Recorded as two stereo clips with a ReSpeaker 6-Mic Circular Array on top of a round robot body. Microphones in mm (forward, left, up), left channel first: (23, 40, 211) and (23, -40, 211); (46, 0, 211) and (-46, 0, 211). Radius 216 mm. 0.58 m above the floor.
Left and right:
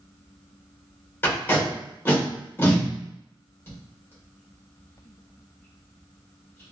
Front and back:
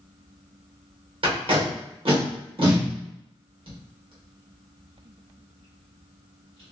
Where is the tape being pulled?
160° left, 1.4 m.